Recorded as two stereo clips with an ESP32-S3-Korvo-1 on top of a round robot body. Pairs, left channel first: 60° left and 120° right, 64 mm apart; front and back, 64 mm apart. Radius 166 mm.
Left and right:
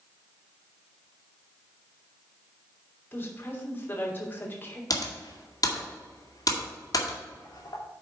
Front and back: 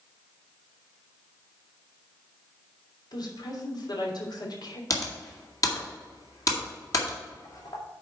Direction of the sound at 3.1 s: Straight ahead.